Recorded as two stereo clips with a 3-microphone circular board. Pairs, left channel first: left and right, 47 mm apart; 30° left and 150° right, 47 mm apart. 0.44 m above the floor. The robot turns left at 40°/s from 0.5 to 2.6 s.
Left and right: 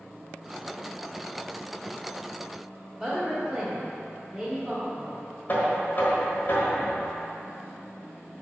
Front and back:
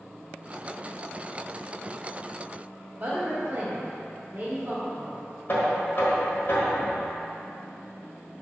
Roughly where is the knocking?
Ahead left.